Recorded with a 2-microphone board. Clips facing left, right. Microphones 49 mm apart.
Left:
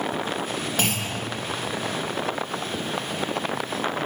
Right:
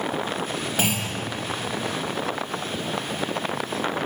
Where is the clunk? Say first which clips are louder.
Right 2 dB; 10° right (ahead or behind), 1.1 m.